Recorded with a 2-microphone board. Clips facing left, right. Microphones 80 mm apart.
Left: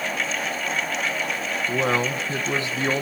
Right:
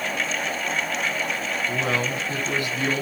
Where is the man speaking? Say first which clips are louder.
Left 4 dB; 30° left (ahead or behind), 1.3 m.